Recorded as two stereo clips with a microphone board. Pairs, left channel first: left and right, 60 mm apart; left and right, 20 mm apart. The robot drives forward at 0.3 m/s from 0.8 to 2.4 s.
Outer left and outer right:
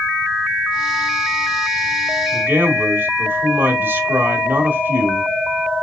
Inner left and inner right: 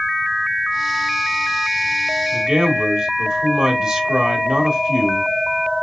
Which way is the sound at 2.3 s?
35° right (ahead or behind).